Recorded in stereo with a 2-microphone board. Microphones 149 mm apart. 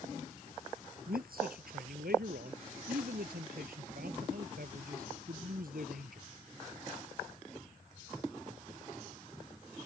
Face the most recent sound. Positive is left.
turn(degrees=-75)  # may be behind; listen again after turning